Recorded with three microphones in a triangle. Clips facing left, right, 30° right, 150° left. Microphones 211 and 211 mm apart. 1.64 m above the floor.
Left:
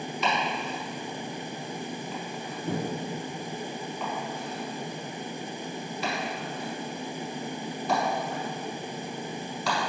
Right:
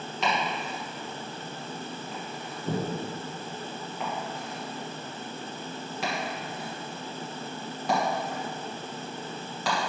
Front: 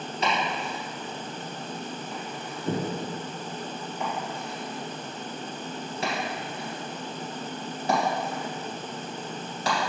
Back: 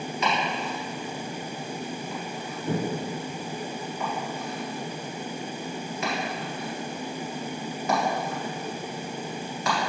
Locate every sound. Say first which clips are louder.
0.2 s chopping: even, even; 90° right, 2 m